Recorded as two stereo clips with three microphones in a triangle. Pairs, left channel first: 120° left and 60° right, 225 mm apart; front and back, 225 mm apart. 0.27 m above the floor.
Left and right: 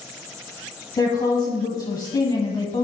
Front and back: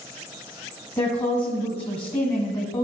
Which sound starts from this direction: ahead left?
A woman speaking, at 1.0 s.